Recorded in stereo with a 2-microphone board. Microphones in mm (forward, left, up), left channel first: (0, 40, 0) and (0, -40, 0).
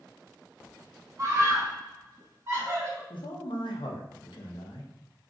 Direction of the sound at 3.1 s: 90° left.